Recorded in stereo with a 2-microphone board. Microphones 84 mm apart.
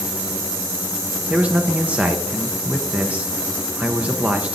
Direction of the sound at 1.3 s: 15° right (ahead or behind).